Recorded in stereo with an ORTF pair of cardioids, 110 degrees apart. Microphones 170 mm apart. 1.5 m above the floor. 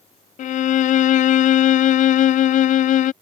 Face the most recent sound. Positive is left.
turn(degrees=50)